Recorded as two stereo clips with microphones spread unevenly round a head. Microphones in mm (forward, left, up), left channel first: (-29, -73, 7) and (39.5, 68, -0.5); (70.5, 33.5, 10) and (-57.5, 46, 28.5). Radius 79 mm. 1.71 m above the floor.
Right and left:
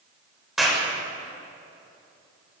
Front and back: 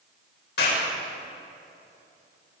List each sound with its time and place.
0.6 s a clap: 25° right, 7.5 m